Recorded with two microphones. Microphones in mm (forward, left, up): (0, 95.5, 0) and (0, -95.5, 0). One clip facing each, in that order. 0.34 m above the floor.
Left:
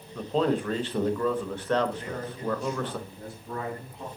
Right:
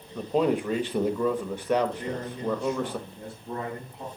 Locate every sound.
0.1 s a man speaking: 10° right (ahead or behind), 0.9 m
2.0 s a man speaking: 25° right (ahead or behind), 5.5 m